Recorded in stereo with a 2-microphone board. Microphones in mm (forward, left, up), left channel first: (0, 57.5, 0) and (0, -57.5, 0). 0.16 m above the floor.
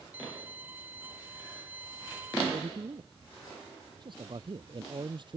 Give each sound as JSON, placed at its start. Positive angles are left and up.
{"t": 0.1, "sound": "a violin", "side_deg": -15}
{"t": 2.5, "sound": "a man speaking", "side_deg": -50}